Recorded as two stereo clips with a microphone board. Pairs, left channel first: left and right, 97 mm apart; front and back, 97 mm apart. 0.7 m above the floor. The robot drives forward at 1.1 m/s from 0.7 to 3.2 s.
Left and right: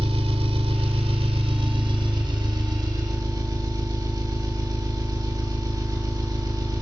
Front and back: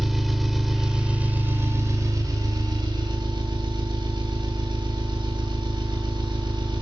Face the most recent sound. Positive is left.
turn(degrees=-140)